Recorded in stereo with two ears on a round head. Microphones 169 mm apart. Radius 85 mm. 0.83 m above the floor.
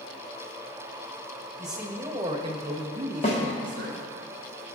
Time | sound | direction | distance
1.6 | a man speaking | centre (ahead or behind) | 0.8 m
3.2 | a snare drum | 35° left (ahead or behind) | 0.9 m